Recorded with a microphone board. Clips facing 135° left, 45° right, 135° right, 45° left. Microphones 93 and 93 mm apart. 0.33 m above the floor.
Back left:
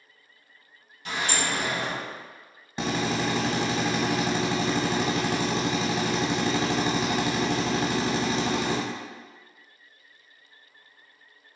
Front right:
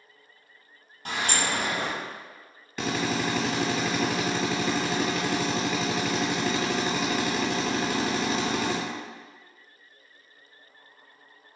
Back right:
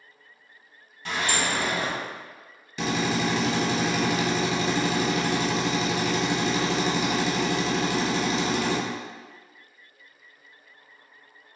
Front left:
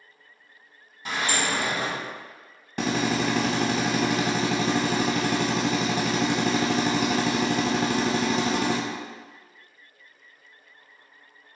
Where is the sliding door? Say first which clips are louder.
Even, even; 25° right, 1.5 m.